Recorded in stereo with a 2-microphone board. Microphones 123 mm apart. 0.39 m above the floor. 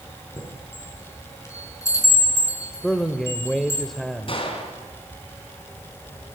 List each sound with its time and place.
0.4 s a chime: 25° left (ahead or behind), 5.5 m
2.8 s a man speaking: centre (ahead or behind), 1.2 m
4.3 s a gunshot: 45° left (ahead or behind), 4.5 m